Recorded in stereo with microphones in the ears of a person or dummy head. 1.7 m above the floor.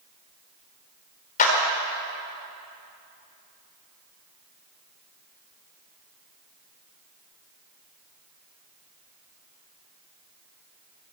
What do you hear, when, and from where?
1.4 s a clap: 40° left (ahead or behind), 4.5 m